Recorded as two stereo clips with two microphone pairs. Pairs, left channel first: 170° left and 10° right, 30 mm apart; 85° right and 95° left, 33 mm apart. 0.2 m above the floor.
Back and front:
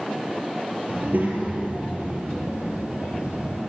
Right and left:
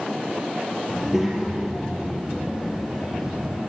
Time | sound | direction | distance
0.9 | a child speaking | 15° left | 2.5 m